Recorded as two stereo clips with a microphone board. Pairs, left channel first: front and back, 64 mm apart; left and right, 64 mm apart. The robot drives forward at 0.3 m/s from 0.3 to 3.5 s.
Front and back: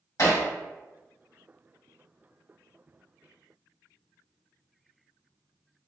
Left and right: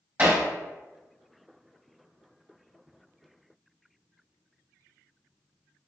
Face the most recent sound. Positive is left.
turn(degrees=-70)